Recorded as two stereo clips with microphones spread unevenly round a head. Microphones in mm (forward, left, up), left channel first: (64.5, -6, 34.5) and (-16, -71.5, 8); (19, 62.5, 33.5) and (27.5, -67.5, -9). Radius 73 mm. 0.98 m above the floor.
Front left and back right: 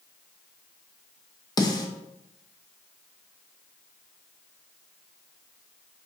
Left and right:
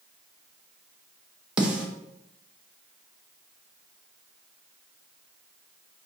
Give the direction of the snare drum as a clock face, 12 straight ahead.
1 o'clock.